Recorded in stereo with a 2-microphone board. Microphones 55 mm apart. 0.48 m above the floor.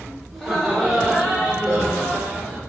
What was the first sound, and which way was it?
Laughter, 5° right (ahead or behind).